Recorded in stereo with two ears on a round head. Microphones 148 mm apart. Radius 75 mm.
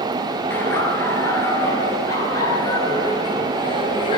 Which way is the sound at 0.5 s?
10° left (ahead or behind).